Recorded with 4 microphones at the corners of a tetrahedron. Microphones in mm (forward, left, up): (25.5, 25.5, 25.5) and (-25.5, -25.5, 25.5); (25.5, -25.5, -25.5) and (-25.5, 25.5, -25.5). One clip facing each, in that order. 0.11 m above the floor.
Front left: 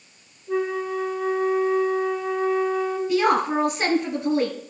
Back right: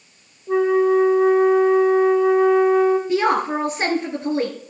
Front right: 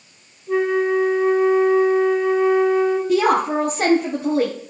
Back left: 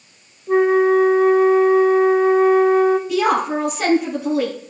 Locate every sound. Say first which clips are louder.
0.5 s a flute: back right 9 dB, back left 5 dB; 160° right, 2.5 m
3.1 s a woman speaking: back right 1 dB, front right 1 dB; 80° right, 2 m